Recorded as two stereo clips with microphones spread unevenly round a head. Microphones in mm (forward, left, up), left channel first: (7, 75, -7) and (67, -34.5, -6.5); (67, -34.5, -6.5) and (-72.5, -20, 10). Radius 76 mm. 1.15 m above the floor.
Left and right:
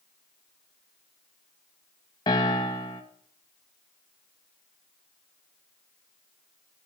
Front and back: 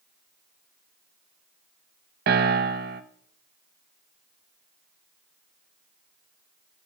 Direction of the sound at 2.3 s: 175° right.